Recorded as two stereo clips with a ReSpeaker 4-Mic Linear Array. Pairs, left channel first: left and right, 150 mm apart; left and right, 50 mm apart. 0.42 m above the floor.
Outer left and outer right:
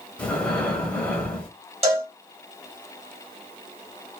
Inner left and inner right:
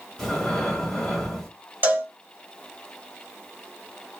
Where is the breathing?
10° left (ahead or behind), 1.1 m.